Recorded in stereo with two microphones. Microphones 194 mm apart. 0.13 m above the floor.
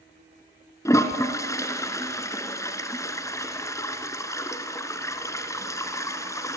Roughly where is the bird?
No bird in this recording.